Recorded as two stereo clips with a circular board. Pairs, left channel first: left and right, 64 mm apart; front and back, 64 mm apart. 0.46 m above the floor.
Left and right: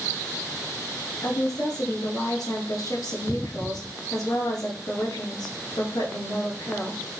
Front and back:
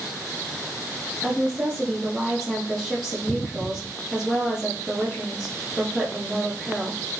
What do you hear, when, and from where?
1.2 s a woman speaking: 100° left, 7.5 m